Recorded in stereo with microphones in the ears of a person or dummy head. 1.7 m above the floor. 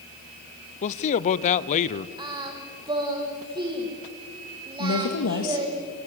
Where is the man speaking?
35° left (ahead or behind), 0.7 m.